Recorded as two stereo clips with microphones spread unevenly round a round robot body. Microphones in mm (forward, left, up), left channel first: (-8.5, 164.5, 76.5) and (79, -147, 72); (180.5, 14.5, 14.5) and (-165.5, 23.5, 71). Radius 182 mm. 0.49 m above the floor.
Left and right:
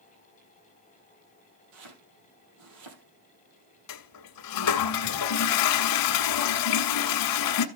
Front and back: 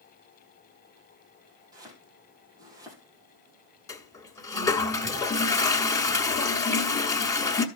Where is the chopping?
100° right, 3 m.